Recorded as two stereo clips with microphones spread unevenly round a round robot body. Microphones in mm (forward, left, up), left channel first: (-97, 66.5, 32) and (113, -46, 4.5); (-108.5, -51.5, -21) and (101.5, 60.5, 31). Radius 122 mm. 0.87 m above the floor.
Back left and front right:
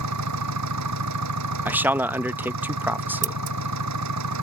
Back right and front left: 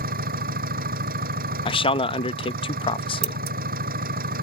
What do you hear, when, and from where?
0.0 s an engine running: 25° right
1.6 s a man speaking: 105° right
3.2 s scissors: 10° right